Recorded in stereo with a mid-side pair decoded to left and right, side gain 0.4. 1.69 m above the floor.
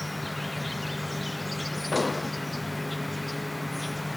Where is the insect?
15° left.